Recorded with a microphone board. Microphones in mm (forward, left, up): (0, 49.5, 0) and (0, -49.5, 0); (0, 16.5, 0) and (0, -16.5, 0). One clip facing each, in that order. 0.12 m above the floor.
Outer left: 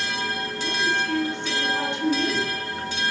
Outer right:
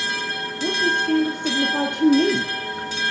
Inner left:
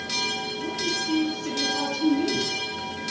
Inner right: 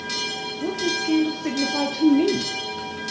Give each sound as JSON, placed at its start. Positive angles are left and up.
{"t": 0.6, "sound": "a woman speaking", "side_deg": -50, "distance_m": 2.0}